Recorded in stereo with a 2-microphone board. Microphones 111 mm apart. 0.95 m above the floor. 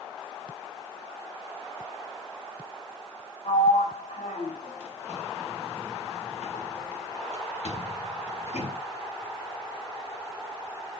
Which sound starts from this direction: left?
A sliding door, at 3.5 s.